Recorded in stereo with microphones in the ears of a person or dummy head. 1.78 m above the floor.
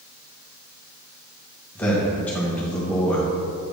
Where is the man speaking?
10° left (ahead or behind), 1.5 m.